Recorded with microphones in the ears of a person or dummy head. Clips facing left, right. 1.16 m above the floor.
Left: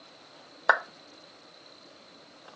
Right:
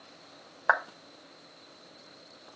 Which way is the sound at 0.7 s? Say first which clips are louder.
Left 2 dB; 40° left (ahead or behind).